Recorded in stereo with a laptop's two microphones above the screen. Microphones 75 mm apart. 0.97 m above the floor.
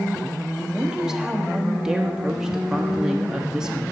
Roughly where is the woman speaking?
Centre.